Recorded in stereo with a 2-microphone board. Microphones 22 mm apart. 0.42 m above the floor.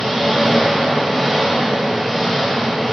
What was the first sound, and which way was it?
An engine running, 5° right (ahead or behind).